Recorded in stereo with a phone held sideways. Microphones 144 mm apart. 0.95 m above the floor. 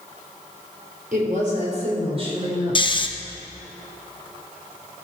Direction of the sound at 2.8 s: 35° left (ahead or behind).